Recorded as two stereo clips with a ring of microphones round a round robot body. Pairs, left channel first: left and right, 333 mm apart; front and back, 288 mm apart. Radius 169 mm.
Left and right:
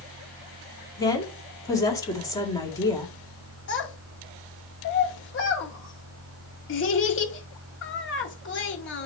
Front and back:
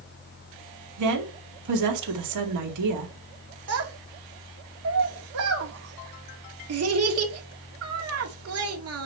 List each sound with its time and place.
1.0 s a woman speaking: 170° left, 2.0 m
3.7 s a child speaking: 145° left, 1.8 m